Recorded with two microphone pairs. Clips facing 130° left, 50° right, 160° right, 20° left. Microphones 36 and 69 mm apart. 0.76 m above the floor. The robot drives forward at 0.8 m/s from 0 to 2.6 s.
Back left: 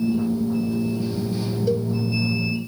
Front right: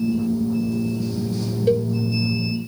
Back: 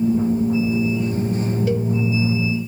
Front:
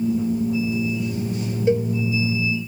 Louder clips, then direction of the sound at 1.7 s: Front right 5 dB, front 7 dB; 30° right.